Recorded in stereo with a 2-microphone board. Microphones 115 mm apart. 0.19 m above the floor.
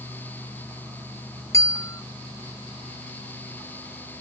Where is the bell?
25° left (ahead or behind).